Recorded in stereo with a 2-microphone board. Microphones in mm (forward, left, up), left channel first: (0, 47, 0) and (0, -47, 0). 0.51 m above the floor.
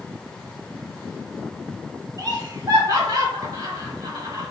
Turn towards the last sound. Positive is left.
turn(degrees=-45)  # may be behind; listen again after turning